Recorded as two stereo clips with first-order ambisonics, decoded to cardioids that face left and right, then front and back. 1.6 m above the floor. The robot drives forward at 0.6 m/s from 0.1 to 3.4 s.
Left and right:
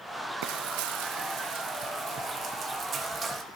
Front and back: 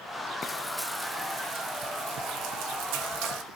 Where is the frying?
70° right, 0.7 m; by 3.4 s 160° right, 1.7 m.